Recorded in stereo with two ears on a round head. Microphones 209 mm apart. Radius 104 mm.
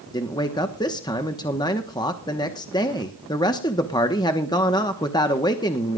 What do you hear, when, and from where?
0.1 s a man speaking: 20° left (ahead or behind), 1.1 m